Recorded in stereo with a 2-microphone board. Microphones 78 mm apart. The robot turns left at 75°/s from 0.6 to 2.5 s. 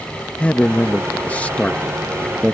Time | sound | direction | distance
0.4 | a man speaking | 15° left (ahead or behind) | ?